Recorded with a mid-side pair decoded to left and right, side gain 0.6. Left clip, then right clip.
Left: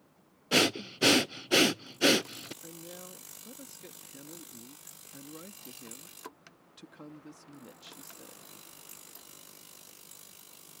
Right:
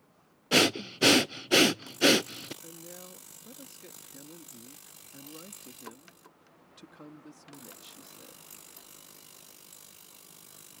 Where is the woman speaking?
5° left.